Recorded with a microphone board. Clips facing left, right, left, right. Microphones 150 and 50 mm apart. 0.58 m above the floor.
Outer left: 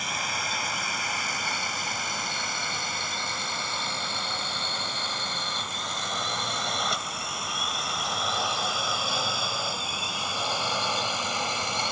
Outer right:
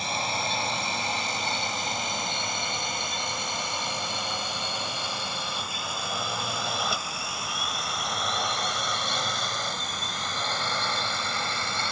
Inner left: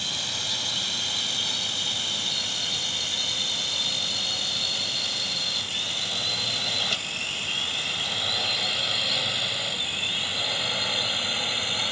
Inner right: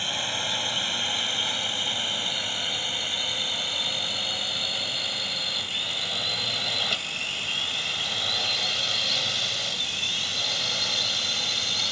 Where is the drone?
30° right (ahead or behind); by 11.9 s 20° left (ahead or behind).